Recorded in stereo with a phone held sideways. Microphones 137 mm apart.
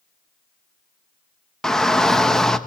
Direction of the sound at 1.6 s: 5° left (ahead or behind).